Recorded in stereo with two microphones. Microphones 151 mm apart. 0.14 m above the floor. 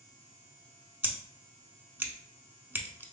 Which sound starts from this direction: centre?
Scissors, at 1.0 s.